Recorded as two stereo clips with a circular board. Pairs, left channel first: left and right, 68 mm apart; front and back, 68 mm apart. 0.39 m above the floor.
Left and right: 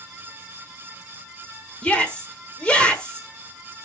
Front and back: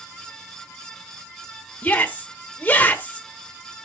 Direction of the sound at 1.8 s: 35° left.